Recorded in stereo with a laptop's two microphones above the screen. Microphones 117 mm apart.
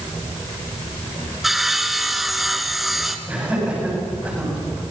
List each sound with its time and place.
1.4 s sawing: centre (ahead or behind), 2 m
3.3 s laughter: 10° right (ahead or behind), 9 m